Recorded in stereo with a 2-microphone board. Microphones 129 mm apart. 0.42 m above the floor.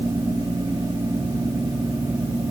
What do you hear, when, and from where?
Only background noise.